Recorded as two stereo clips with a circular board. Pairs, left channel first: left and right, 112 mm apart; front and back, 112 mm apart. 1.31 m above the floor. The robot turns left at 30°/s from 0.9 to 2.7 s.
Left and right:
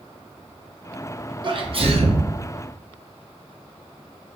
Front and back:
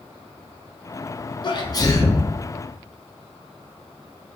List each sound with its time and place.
1.4 s a sneeze: 45° right, 0.7 m; by 2.3 s 70° right, 0.7 m